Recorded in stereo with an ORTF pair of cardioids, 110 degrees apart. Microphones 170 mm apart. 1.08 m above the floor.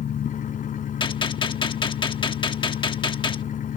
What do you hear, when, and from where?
0.0 s an engine running: 50° left
1.0 s a gunshot: 30° left